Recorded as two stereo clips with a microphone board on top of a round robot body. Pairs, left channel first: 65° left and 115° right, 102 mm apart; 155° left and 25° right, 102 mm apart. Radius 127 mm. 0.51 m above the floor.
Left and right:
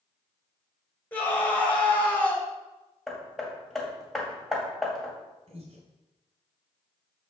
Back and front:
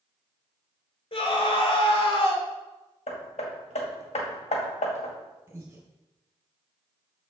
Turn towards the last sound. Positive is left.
turn(degrees=-90)